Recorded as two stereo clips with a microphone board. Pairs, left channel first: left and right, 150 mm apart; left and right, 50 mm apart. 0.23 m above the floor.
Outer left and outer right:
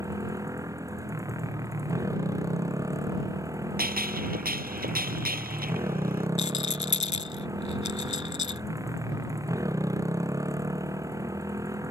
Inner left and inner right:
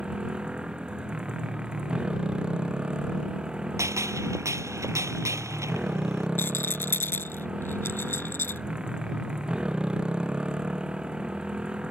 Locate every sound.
0.0 s a motorcycle: 20° right (ahead or behind)
3.8 s a gunshot: 75° right (ahead or behind)
6.4 s a rattle: 50° left (ahead or behind)